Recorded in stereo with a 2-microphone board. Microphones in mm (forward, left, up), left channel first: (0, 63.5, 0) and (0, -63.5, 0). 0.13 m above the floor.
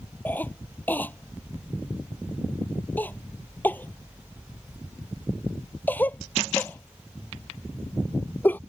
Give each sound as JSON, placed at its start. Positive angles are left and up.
{"t": 0.2, "sound": "a cough", "side_deg": 15}